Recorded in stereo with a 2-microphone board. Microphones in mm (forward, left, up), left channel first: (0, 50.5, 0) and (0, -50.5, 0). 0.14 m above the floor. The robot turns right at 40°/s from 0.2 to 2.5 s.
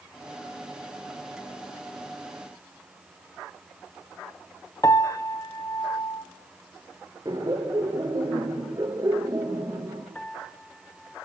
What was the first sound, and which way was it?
A piano, 35° left (ahead or behind).